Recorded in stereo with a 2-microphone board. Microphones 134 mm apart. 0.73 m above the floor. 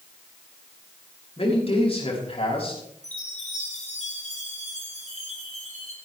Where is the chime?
55° left (ahead or behind), 5 m.